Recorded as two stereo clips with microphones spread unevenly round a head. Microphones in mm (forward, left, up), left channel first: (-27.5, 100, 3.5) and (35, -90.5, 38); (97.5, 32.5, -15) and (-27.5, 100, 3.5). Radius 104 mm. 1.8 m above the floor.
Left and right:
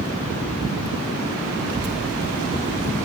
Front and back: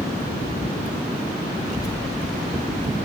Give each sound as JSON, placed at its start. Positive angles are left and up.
{"t": 1.7, "sound": "a child speaking", "azimuth_deg": -100, "distance_m": 0.9}